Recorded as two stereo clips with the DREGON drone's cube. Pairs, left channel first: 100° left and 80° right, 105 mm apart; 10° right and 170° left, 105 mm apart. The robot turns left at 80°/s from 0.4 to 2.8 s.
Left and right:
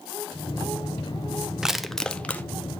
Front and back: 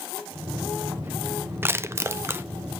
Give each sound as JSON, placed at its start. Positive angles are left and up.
{"t": 1.6, "sound": "crushing", "azimuth_deg": -155, "distance_m": 0.6}